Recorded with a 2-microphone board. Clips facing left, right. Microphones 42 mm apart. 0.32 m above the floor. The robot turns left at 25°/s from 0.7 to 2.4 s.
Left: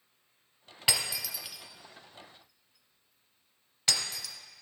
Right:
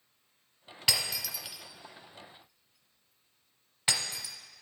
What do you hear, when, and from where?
0.9 s breaking glass: 15° left (ahead or behind), 1.1 m; by 4.3 s 15° right (ahead or behind), 1.1 m